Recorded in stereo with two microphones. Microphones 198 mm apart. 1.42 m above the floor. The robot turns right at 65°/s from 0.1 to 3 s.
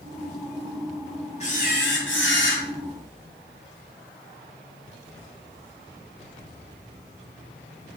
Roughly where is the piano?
No piano in this recording.